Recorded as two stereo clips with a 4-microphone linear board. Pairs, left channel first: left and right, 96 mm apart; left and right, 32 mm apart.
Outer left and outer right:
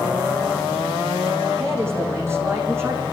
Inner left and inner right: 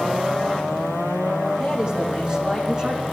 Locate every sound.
1.6 s a man speaking: 25° right (ahead or behind), 4.5 m